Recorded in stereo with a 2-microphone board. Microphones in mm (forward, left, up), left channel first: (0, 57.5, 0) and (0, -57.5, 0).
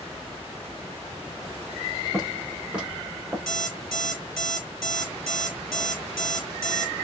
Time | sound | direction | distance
2.1 | footsteps | centre (ahead or behind) | 5 m
3.5 | an alarm clock | 5° left (ahead or behind) | 4 m